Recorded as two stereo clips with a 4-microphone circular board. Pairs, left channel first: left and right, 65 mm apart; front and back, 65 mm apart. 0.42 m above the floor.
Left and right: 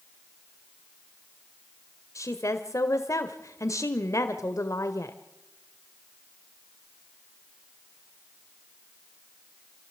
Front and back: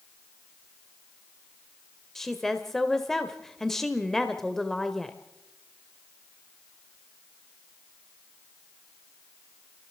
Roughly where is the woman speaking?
Left.